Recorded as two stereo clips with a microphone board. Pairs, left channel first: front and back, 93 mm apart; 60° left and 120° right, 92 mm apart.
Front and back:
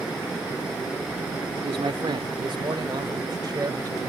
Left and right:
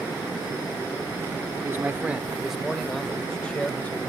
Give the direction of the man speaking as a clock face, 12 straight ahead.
6 o'clock.